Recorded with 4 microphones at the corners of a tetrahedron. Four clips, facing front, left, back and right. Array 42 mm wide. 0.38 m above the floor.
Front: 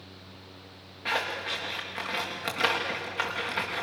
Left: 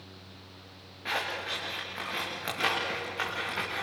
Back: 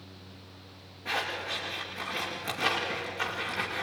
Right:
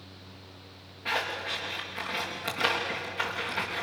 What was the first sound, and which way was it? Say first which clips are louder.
Scissors: right 2 dB, front 2 dB; 15° left.